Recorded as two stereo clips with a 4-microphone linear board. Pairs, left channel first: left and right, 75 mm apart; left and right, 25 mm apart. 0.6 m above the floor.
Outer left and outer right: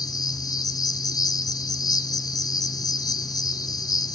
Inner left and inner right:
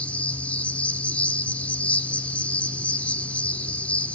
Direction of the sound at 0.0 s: 60° left (ahead or behind).